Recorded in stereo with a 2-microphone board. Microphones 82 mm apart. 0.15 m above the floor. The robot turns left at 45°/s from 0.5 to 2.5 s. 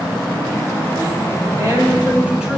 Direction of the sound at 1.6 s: 130° right.